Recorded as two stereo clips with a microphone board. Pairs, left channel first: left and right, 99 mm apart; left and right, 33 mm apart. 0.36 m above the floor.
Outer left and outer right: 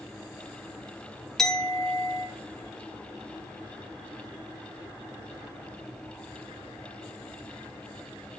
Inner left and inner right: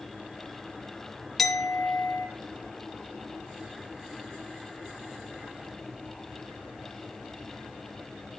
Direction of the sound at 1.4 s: 5° left (ahead or behind).